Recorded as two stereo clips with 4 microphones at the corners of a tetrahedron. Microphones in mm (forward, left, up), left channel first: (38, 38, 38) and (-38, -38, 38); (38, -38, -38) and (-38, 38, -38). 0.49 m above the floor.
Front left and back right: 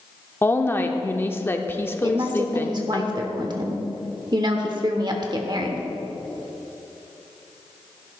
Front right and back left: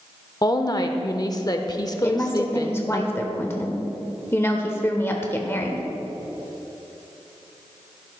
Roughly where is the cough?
I don't hear a cough.